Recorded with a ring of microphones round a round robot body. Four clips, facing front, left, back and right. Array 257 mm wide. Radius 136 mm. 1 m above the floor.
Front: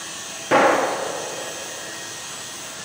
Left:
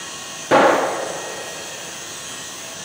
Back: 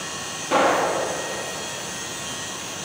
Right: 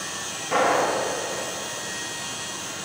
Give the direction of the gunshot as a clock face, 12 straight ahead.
10 o'clock.